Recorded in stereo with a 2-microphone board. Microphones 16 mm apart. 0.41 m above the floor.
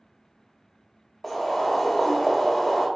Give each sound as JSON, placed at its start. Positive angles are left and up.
{"t": 1.2, "sound": "boiling", "side_deg": 10, "distance_m": 0.6}